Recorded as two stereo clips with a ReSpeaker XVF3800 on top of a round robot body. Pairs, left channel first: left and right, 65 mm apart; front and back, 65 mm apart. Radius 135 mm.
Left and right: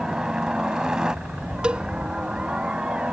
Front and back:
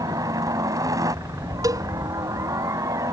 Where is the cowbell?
165° right.